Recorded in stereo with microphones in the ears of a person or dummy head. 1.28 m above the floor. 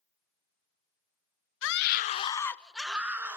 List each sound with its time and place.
1.6 s a scream: 70° left (ahead or behind), 0.8 m; by 3.4 s 15° right (ahead or behind), 1.4 m